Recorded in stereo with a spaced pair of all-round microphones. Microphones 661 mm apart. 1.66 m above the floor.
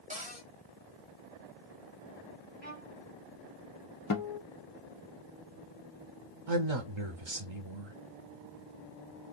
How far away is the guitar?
About 0.5 m.